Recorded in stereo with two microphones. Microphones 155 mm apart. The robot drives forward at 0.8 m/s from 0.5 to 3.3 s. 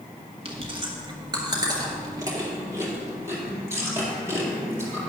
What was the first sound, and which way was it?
Chewing, 40° right (ahead or behind).